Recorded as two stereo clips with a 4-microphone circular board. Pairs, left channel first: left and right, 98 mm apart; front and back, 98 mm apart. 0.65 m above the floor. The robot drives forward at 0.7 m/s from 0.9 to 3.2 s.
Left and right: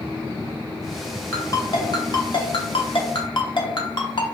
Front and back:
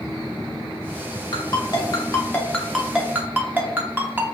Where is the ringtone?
35° left, 1.3 m; by 4.4 s 115° left, 0.9 m.